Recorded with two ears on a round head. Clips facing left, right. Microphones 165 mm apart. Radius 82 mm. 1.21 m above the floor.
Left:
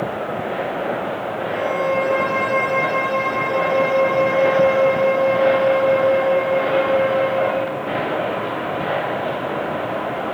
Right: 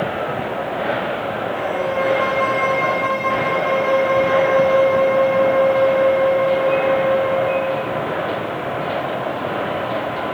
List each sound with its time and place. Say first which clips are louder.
1.5 s a violin: left 3 dB; 50° left (ahead or behind), 1.7 m